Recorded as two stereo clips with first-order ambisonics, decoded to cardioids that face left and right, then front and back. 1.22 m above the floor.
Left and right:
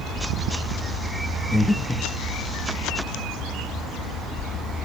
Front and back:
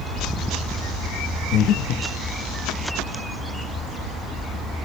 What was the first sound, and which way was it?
Breathing, 5° left.